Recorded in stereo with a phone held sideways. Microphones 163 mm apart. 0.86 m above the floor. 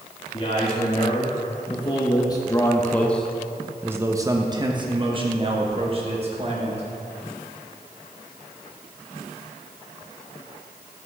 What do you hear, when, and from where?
0.3 s a man speaking: 35° left (ahead or behind), 1.7 m; by 6.8 s 40° right (ahead or behind), 1.9 m